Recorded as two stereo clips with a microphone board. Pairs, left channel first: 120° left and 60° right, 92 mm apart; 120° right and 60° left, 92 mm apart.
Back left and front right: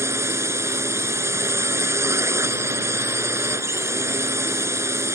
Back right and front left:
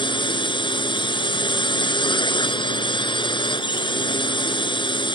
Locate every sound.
0.0 s a drone: 115° right